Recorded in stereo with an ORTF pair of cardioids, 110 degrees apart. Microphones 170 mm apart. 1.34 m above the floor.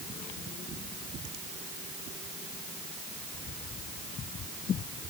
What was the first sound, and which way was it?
Only background noise.